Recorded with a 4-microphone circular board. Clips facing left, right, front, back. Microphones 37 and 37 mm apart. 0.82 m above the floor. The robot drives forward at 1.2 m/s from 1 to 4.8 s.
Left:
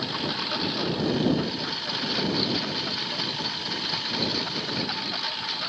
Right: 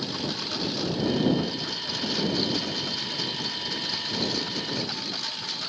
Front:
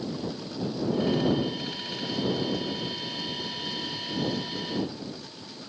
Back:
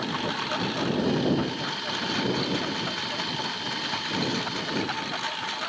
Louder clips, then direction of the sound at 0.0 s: Left 2 dB, back 5 dB; 160° left.